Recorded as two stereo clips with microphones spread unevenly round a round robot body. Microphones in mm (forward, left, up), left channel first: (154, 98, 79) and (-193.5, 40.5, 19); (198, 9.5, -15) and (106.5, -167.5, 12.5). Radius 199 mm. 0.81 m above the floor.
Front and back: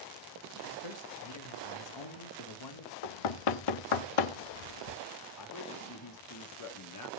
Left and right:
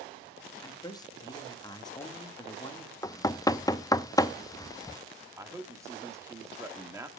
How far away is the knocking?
About 0.6 m.